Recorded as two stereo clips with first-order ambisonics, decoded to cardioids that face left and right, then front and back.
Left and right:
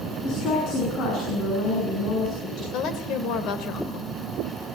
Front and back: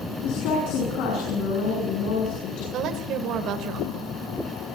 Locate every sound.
0.2 s a woman speaking: 35° left, 8 m
2.7 s a woman speaking: 135° left, 3.5 m